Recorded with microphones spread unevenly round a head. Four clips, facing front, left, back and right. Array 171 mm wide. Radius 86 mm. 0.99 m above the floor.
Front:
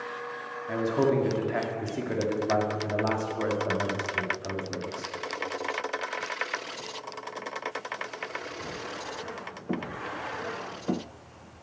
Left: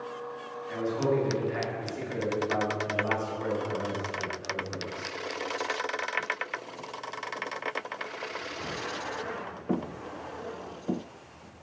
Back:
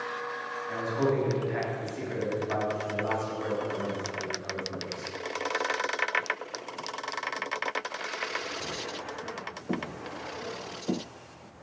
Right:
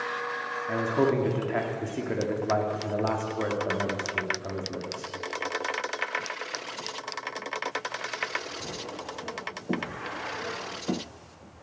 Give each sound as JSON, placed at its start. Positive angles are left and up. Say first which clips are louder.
{"t": 0.7, "sound": "a man speaking", "louder": "right 3 dB, front 3 dB", "azimuth_deg": -55, "distance_m": 1.9}